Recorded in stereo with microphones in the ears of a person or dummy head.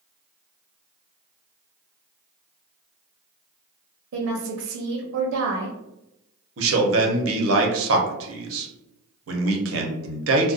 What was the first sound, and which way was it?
A woman speaking, 75° right (ahead or behind).